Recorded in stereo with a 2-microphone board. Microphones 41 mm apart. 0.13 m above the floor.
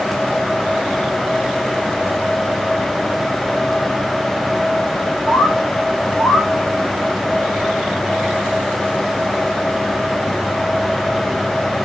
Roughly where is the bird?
Left.